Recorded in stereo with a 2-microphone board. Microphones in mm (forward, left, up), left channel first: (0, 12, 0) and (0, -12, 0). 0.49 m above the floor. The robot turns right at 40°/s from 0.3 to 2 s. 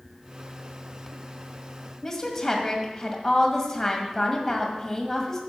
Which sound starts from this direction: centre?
A woman speaking, at 2.0 s.